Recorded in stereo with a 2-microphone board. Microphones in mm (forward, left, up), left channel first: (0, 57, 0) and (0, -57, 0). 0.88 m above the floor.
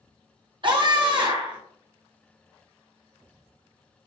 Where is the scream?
45° right (ahead or behind), 1.2 m.